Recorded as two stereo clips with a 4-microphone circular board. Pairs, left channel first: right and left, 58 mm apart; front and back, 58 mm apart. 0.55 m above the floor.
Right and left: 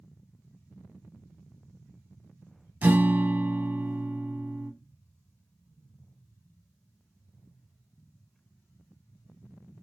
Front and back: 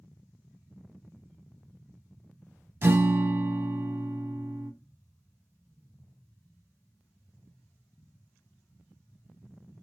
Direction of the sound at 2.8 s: 145° left.